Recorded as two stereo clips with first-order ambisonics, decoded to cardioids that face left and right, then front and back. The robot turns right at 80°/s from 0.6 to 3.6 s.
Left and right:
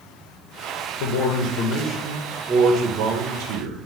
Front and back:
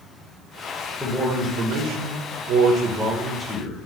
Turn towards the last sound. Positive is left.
turn(degrees=-65)